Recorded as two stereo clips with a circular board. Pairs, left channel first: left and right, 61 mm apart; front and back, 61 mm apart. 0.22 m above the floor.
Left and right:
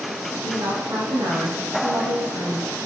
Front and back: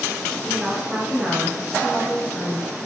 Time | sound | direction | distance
0.4 | a woman speaking | 90° right | 9.5 m